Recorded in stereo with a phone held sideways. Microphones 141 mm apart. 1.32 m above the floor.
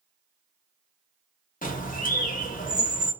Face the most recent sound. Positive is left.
turn(degrees=70)  # may be behind; listen again after turning